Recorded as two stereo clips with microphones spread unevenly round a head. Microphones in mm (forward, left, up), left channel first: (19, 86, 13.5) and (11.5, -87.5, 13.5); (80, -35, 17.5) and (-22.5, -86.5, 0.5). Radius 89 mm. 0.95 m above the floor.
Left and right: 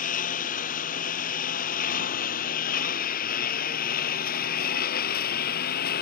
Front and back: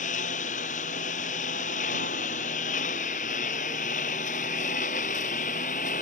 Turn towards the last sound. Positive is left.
turn(degrees=55)